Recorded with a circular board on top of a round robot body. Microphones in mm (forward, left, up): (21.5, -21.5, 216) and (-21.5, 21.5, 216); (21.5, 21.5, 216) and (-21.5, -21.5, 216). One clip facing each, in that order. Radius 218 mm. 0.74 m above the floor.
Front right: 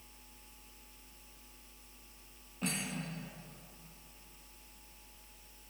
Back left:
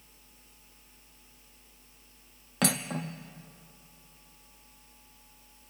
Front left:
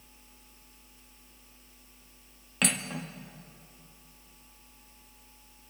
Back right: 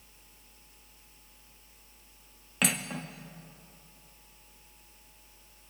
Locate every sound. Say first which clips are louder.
2.6 s cutlery clinking: back left 8 dB, even; 135° left, 0.8 m